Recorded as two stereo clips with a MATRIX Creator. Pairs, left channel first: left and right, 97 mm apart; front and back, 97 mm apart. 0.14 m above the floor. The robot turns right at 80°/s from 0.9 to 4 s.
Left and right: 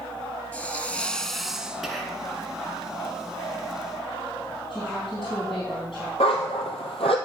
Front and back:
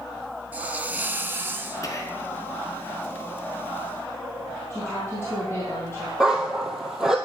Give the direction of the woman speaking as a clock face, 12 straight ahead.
10 o'clock.